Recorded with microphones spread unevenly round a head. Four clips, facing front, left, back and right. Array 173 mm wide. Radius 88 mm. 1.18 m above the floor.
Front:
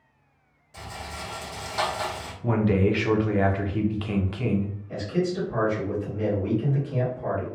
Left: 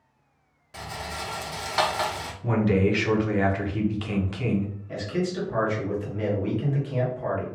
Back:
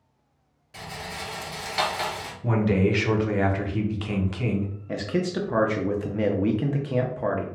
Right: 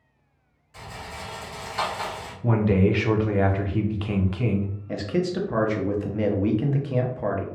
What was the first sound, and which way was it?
A rattle, 105° left.